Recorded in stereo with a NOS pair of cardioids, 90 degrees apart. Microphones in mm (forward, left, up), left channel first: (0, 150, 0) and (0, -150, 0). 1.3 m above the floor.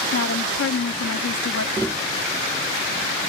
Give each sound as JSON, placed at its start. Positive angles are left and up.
{"t": 0.1, "sound": "a woman speaking", "azimuth_deg": 50}
{"t": 1.8, "sound": "tapping", "azimuth_deg": 10}